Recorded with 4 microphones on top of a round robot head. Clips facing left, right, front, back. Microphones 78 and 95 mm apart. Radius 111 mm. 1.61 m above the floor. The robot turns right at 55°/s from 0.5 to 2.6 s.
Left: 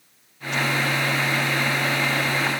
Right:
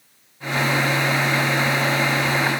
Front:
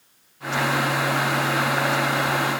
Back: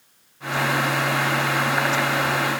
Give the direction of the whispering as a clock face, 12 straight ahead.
No whispering in this recording.